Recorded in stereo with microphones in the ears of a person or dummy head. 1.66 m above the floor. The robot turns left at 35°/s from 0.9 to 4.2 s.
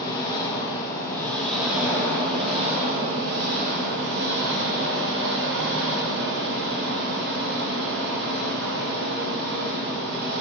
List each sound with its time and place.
0.0 s an engine running: 25° left, 1.8 m; by 10.4 s 90° right, 1.8 m